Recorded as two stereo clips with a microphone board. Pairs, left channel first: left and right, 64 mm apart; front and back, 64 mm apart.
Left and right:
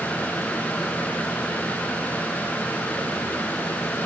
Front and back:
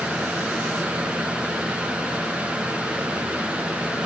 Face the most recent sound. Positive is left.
No sound to turn to.